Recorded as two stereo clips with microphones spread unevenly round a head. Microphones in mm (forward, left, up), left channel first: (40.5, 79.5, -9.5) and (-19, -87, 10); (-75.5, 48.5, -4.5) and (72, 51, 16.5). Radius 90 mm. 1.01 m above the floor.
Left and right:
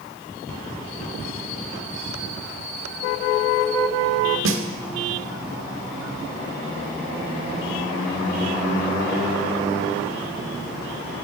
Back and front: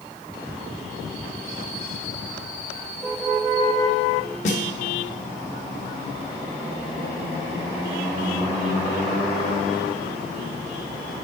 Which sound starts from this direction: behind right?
A snare drum, at 4.5 s.